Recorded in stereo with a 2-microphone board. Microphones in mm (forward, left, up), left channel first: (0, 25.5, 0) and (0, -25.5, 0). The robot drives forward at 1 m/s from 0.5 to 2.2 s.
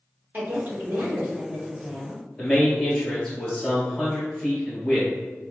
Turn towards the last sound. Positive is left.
turn(degrees=15)  # may be behind; listen again after turning